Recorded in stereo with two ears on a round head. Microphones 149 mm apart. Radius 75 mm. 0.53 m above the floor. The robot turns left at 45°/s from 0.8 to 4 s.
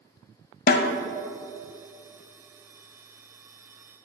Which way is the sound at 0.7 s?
55° left (ahead or behind).